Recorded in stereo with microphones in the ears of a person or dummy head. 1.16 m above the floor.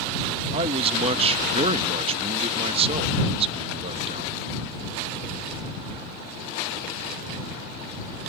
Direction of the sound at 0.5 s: 35° right (ahead or behind).